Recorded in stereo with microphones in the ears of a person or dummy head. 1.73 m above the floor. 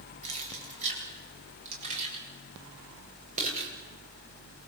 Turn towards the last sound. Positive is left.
turn(degrees=-45)  # may be behind; listen again after turning